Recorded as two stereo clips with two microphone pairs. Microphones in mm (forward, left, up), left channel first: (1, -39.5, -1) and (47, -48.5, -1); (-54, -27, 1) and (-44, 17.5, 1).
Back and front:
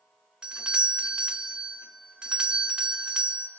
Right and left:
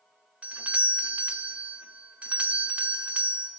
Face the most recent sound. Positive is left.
turn(degrees=40)